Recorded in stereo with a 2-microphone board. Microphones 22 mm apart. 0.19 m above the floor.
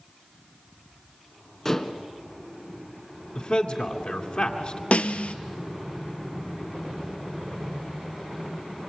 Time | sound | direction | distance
1.6 | dishes clattering | 20° left (ahead or behind) | 1.2 m
3.4 | a man speaking | 50° left (ahead or behind) | 2 m
4.9 | a snare drum | 65° left (ahead or behind) | 0.9 m